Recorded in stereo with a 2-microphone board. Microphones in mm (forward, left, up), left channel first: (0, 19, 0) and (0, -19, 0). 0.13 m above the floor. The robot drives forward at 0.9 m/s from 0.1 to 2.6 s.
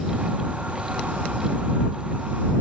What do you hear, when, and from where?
Only background noise.